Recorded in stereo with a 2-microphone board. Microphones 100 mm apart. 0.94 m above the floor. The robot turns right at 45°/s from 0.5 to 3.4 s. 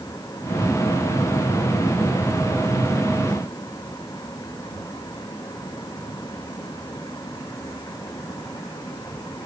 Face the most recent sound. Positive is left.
No sound to turn to.